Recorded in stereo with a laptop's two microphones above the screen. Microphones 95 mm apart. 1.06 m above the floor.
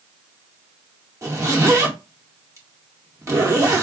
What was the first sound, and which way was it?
A zipper, 35° right (ahead or behind).